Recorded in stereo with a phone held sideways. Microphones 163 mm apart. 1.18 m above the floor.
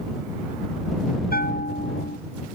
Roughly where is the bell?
Left.